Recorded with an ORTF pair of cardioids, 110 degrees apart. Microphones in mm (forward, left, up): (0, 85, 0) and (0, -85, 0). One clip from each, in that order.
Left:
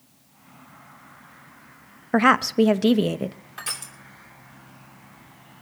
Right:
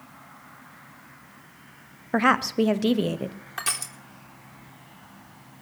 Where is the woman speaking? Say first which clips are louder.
Left 3 dB; 15° left, 0.8 m.